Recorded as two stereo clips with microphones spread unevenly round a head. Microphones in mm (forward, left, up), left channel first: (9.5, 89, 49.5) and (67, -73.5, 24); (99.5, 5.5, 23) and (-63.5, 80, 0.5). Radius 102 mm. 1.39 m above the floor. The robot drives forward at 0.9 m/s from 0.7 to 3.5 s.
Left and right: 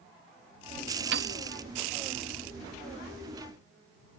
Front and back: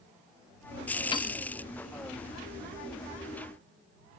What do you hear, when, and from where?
1.1 s a piano: 75° right; by 1.4 s 95° right